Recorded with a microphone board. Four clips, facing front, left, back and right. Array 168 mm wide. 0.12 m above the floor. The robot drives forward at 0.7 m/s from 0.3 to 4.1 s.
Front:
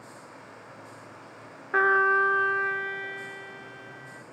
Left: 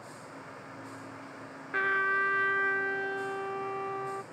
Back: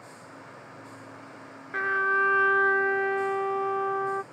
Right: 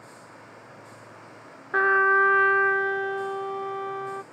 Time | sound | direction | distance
1.7 | a trumpet | 45° right | ?